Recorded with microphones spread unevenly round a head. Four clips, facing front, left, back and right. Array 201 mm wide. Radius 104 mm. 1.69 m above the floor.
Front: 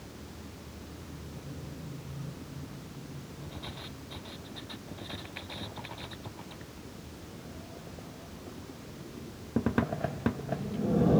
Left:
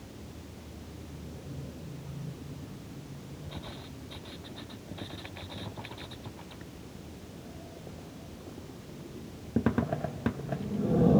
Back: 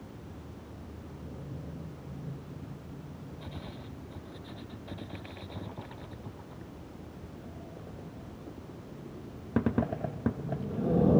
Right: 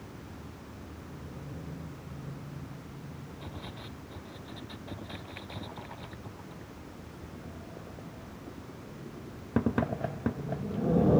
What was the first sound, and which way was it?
Only background noise.